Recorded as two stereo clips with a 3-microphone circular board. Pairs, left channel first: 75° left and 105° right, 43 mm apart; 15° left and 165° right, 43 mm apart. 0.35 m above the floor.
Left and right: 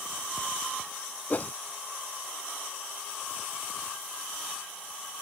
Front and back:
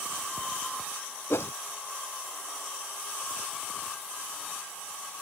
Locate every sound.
1.3 s a whoosh: 25° left